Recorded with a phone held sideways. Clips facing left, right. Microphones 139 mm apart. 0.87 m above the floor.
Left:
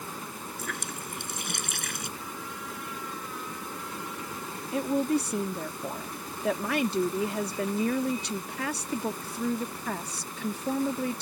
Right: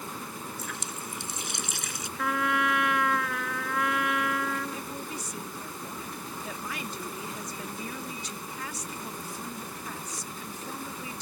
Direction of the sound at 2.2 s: 85° right.